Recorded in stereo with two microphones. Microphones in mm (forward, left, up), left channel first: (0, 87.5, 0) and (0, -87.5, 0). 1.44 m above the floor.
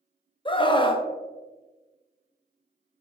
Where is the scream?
30° left (ahead or behind), 0.7 m.